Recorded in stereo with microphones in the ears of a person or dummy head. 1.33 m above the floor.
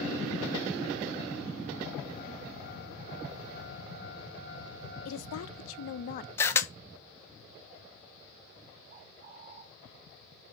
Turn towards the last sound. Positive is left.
turn(degrees=-65)  # may be behind; listen again after turning